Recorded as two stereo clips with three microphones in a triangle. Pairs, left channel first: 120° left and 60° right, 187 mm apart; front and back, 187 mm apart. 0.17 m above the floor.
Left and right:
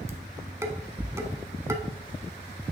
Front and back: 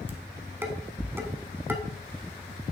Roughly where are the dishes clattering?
Behind right.